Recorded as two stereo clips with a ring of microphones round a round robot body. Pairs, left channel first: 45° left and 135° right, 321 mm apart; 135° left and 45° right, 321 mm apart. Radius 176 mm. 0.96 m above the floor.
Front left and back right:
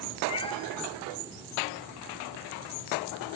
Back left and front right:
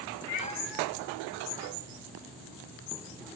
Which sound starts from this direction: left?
A cat meowing, at 0.3 s.